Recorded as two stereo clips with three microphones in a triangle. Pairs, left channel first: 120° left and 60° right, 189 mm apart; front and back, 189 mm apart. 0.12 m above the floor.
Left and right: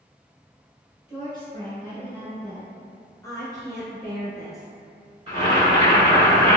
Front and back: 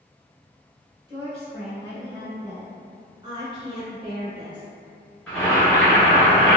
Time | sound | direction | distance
1.1 | a woman speaking | 130° left | 1.4 m
3.2 | a woman speaking | 170° left | 1.2 m
5.3 | boiling | 80° right | 1.3 m